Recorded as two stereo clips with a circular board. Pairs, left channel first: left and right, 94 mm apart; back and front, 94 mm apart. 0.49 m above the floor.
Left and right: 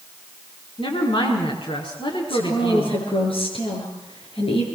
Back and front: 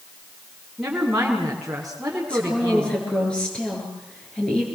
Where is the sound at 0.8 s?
85° left, 5 m.